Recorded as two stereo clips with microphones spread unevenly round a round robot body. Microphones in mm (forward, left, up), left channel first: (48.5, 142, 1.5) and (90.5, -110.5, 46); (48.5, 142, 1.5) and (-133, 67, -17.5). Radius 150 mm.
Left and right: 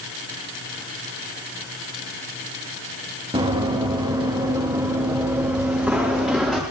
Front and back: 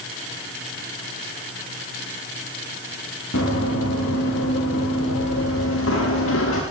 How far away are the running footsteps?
About 6.5 m.